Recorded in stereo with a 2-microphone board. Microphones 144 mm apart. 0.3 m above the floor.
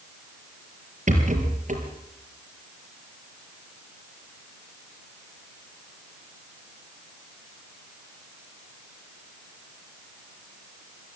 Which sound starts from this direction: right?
A rattle, at 1.1 s.